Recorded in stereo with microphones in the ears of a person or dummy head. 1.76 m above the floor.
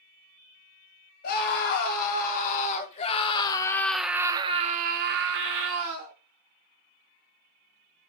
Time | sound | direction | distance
1.2 | a scream | 55° left (ahead or behind) | 1.7 m